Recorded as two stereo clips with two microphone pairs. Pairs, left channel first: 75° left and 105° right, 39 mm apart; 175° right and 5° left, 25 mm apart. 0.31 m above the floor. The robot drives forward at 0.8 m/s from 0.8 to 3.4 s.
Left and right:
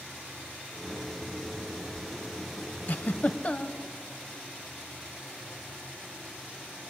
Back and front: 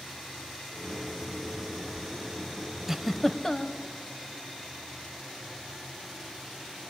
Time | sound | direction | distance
2.9 | a giggle | 75° left | 0.6 m